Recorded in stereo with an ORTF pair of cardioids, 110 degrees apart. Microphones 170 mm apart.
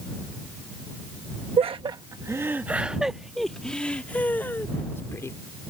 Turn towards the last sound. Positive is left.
turn(degrees=15)